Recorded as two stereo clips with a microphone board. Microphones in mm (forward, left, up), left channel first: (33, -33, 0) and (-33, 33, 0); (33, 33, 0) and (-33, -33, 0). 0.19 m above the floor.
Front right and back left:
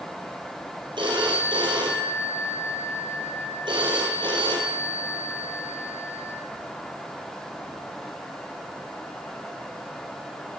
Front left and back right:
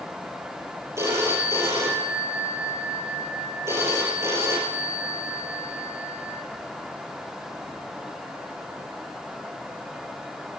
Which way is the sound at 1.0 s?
165° left.